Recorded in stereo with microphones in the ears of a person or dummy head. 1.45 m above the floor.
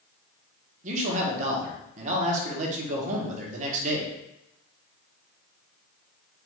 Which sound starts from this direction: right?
A man speaking, at 0.8 s.